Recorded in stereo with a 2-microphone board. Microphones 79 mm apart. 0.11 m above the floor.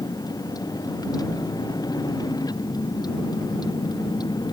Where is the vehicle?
55° left (ahead or behind); by 4.5 s 60° left (ahead or behind).